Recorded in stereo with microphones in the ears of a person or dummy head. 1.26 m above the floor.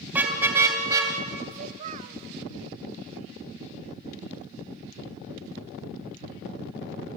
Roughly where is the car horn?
Centre.